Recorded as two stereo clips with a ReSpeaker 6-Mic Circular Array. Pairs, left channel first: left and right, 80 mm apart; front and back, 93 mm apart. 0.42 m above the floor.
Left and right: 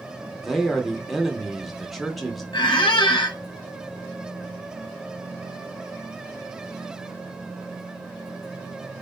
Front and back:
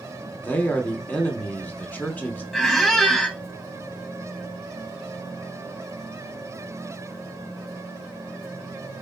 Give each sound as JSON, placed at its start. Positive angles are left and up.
{"t": 0.4, "sound": "a man speaking", "azimuth_deg": 0, "distance_m": 0.8}
{"t": 2.5, "sound": "a squeak", "azimuth_deg": 85, "distance_m": 0.9}